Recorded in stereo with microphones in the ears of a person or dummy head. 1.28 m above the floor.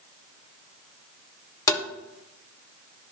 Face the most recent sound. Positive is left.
turn(degrees=20)  # may be behind; listen again after turning